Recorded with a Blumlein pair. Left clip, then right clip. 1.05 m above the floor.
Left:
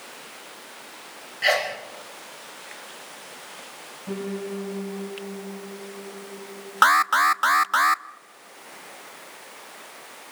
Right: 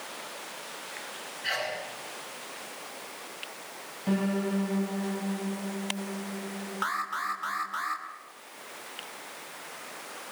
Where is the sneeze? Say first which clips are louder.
Left 9 dB; 45° left, 5 m.